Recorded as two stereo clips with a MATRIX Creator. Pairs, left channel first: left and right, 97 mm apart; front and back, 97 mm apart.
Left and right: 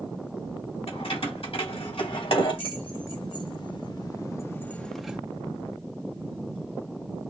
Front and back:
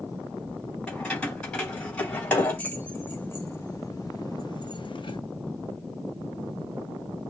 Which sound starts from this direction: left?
Keys jangling, at 0.9 s.